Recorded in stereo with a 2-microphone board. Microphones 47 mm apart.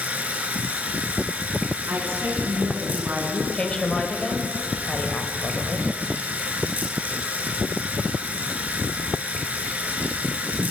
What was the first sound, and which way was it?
Running water, 35° right (ahead or behind).